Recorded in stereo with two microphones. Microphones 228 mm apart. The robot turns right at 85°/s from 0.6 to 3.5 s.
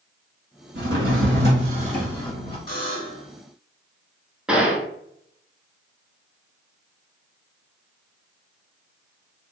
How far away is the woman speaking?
I don't hear a woman speaking.